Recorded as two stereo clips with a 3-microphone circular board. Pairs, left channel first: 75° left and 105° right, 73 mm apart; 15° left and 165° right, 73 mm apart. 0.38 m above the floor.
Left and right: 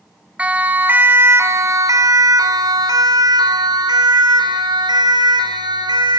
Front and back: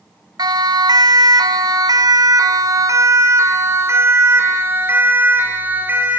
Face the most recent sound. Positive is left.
turn(degrees=-100)